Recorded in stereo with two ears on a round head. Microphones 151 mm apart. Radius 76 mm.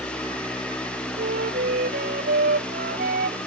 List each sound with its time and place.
1.2 s a flute: 50° right (ahead or behind)